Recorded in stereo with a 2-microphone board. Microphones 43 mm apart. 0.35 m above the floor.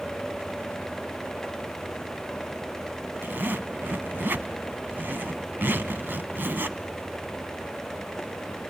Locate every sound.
3.2 s a zipper: 55° right (ahead or behind), 1.0 m